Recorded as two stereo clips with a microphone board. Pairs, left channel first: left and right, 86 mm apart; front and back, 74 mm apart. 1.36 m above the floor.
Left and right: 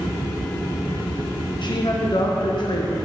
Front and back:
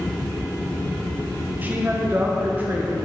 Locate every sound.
1.6 s a woman speaking: 115° left, 1.0 m